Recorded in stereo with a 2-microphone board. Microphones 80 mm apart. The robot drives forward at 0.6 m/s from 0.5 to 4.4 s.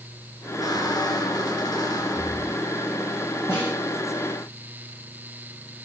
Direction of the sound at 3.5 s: 30° left (ahead or behind).